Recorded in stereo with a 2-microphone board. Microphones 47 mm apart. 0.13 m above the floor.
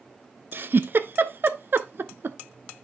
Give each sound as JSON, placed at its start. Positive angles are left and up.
{"t": 0.5, "sound": "a giggle", "side_deg": -45, "distance_m": 0.6}